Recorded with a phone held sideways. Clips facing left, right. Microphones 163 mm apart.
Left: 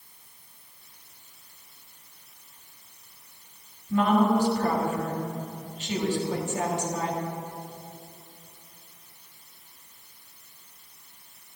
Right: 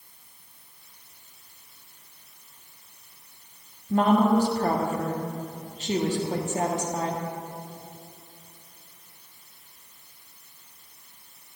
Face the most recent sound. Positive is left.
turn(degrees=-40)  # may be behind; listen again after turning